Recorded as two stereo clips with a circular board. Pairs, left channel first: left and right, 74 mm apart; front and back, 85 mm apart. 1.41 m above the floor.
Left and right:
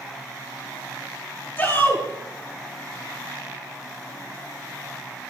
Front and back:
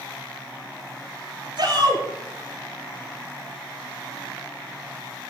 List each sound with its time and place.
1.6 s a shout: 150° left, 7 m